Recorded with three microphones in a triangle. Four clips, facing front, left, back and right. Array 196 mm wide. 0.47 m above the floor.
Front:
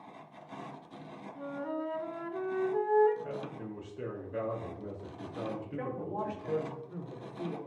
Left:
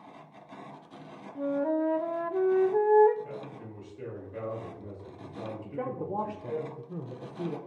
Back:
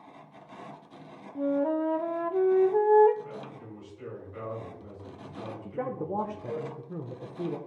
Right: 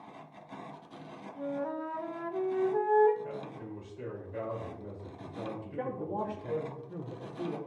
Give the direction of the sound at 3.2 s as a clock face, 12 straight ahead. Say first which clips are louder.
Right 1 dB, front 2 dB; 12 o'clock.